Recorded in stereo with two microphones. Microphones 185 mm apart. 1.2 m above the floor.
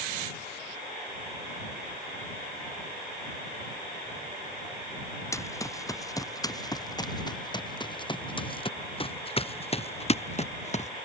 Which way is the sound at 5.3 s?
15° left (ahead or behind).